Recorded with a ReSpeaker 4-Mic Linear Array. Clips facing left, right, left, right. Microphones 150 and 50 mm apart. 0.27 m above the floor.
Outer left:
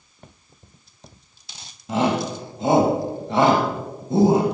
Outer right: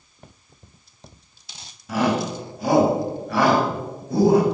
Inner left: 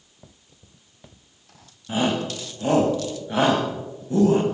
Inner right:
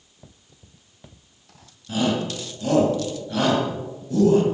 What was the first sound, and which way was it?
A shout, 25° left (ahead or behind).